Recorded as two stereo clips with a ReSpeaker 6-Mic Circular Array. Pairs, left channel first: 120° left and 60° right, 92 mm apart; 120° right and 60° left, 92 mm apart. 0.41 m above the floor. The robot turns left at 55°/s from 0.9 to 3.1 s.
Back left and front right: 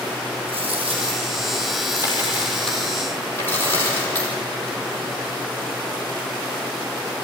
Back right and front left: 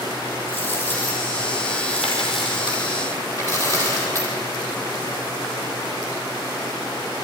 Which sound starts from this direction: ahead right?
A dropped coin, at 0.5 s.